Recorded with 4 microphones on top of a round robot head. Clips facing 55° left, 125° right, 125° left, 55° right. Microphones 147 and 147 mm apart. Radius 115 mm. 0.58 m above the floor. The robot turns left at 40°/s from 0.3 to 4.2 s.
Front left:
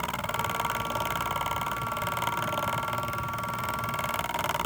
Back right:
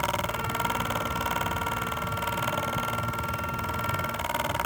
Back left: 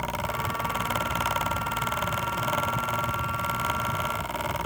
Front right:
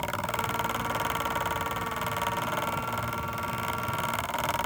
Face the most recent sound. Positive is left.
No sound to turn to.